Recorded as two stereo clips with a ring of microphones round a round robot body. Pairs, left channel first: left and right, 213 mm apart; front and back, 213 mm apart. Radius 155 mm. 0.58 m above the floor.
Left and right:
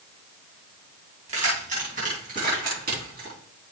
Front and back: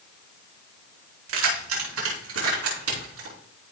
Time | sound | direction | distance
1.3 | keys jangling | 155° right | 3.5 m